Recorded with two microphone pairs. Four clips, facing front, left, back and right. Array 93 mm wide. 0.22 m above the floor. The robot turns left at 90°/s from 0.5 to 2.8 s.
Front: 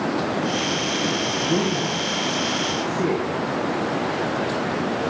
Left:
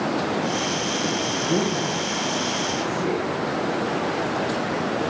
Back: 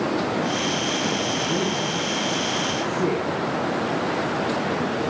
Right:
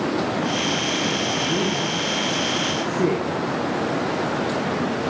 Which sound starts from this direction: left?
A woman speaking, at 1.4 s.